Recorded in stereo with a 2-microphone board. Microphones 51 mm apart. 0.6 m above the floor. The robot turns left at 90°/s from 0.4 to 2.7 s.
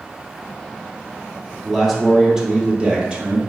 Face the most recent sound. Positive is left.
turn(degrees=-20)  # may be behind; listen again after turning